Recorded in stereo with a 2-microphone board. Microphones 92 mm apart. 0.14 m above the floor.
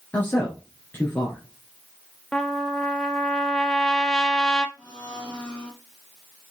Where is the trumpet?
5° left (ahead or behind), 0.9 m.